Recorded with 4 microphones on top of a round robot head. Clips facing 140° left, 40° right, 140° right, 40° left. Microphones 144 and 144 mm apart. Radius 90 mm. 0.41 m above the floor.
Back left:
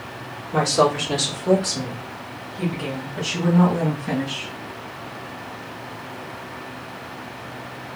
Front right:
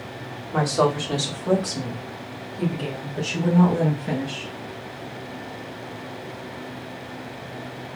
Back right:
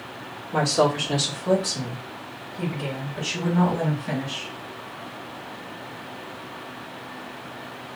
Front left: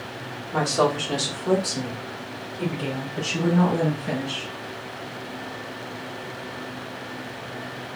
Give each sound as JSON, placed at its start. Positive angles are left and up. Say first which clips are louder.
{"t": 0.5, "sound": "a woman speaking", "louder": "back left 2 dB, back right 1 dB", "azimuth_deg": 165, "distance_m": 1.4}